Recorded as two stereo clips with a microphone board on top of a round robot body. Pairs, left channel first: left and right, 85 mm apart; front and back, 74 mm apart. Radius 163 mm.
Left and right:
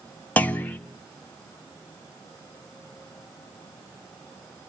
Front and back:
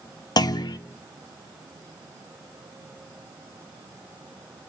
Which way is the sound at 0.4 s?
20° left.